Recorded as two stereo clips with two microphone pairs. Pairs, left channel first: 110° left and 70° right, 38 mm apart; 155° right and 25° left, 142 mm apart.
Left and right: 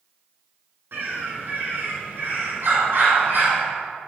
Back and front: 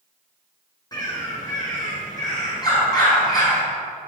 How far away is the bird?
About 4 m.